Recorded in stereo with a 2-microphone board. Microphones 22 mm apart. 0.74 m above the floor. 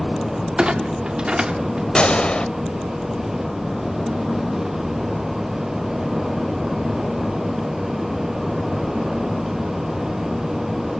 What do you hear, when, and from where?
0.6 s a clunk: 50° right (ahead or behind), 1.6 m
1.9 s a gunshot: 50° left (ahead or behind), 0.7 m